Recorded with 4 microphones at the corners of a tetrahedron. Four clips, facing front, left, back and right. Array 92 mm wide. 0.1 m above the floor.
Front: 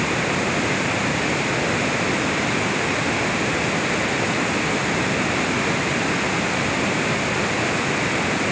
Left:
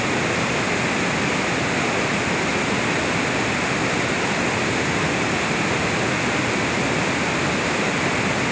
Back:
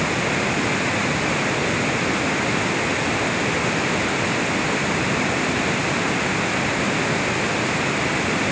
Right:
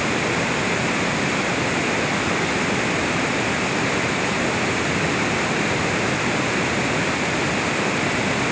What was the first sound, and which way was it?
Only background noise.